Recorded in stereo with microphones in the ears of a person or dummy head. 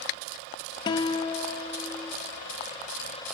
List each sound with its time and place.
0.9 s a guitar: 20° left (ahead or behind), 1.2 m